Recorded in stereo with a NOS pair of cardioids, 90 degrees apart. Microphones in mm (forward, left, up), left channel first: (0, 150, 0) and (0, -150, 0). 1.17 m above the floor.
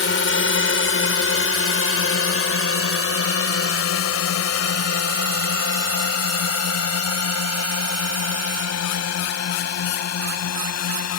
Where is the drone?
40° left; by 11.2 s 60° left.